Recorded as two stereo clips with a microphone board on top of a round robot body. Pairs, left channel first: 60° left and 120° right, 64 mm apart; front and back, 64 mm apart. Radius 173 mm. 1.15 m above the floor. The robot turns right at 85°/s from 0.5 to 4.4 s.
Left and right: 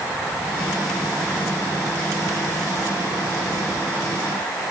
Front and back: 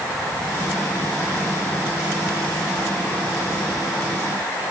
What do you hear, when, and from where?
Only background noise.